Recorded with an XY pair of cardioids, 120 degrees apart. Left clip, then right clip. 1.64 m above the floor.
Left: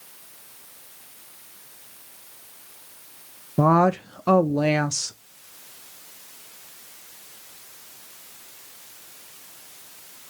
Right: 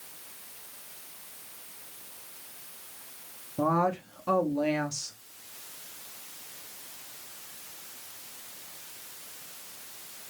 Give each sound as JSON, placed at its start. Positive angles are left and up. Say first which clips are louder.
{"t": 3.6, "sound": "a woman speaking", "louder": "left 8 dB", "azimuth_deg": 55, "distance_m": 0.5}